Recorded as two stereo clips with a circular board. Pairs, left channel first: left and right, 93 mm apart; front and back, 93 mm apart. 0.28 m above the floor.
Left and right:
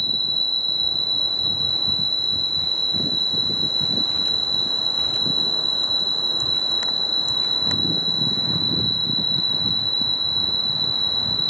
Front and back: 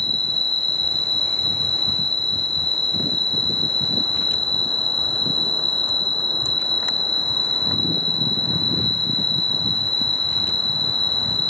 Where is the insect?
175° left, 2.5 m.